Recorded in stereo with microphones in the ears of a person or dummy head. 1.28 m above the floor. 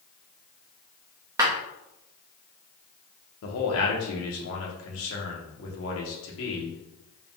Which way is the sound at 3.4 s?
65° left (ahead or behind).